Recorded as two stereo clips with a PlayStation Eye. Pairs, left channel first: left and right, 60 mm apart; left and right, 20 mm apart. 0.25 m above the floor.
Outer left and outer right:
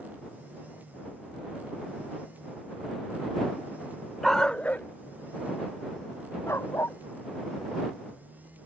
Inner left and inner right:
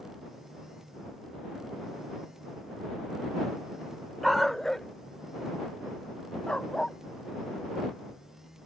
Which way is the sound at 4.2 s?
Centre (ahead or behind).